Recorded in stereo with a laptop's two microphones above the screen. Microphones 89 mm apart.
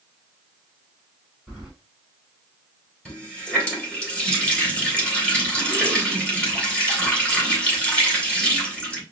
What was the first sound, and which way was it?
Keys jangling, 5° left (ahead or behind).